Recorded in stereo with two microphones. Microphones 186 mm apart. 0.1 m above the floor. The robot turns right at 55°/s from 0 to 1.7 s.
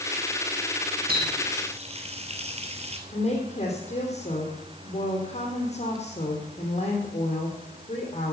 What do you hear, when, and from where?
1.1 s a running tap: 55° right (ahead or behind), 1.6 m; by 3.0 s 35° right (ahead or behind), 1.6 m
3.1 s a woman speaking: 35° left (ahead or behind), 3 m